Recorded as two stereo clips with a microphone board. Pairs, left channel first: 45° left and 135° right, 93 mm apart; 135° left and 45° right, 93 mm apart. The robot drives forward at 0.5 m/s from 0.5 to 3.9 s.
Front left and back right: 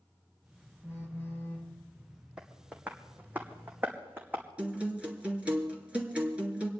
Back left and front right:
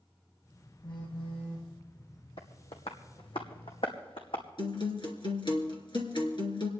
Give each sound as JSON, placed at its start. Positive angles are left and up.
{"t": 0.8, "sound": "a phone buzzing", "azimuth_deg": 105, "distance_m": 6.0}
{"t": 2.4, "sound": "tapping", "azimuth_deg": 145, "distance_m": 1.9}
{"t": 4.6, "sound": "a guitar", "azimuth_deg": 150, "distance_m": 3.0}